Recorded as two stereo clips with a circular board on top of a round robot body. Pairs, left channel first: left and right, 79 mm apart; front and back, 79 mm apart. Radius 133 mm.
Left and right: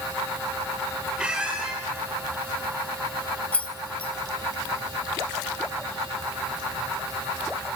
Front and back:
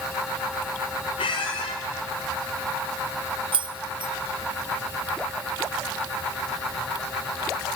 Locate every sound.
1.2 s a squeak: 10° right, 1.2 m
3.5 s keys jangling: 165° left, 0.7 m